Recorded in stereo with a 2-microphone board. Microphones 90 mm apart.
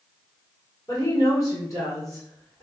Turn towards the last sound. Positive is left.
turn(degrees=35)  # may be behind; listen again after turning